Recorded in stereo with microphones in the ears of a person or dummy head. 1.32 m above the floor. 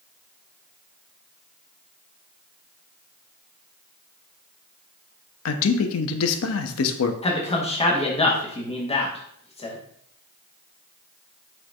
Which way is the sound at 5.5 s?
75° left (ahead or behind).